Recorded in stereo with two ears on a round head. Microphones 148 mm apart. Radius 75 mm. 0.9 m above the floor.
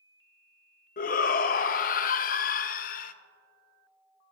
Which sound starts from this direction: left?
A shout, at 1.0 s.